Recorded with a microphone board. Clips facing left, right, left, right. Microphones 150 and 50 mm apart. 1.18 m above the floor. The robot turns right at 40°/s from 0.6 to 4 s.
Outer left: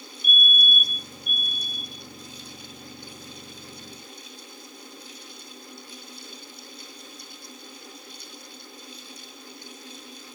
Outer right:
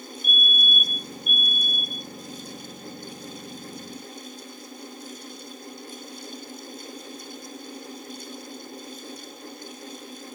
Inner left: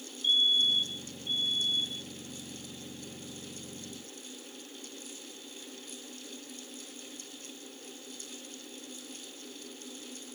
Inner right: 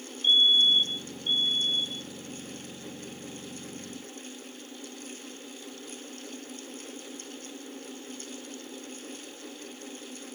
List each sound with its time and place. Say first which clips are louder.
0.2 s a fire alarm: outer left 1 dB, inner right 5 dB; 145° right; by 2.1 s 85° right